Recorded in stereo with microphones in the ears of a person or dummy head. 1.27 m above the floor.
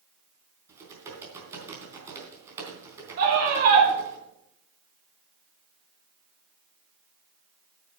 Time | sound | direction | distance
0.7 | typing on a keyboard | 15° right (ahead or behind) | 3.5 m
3.2 | a scream | 55° right (ahead or behind) | 6 m